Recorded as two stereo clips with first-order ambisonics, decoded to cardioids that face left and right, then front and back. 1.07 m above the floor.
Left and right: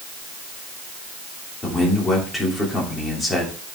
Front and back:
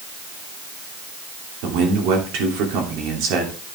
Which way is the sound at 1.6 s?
165° left.